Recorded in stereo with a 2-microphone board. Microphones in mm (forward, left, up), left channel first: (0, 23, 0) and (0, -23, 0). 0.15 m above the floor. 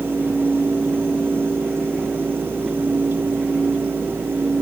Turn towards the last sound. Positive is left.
No sound to turn to.